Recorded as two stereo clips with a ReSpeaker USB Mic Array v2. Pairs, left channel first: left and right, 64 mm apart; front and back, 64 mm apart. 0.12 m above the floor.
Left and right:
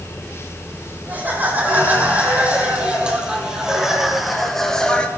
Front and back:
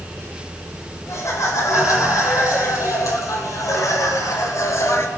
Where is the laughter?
30° right, 5.5 m; by 5.1 s 20° left, 2 m.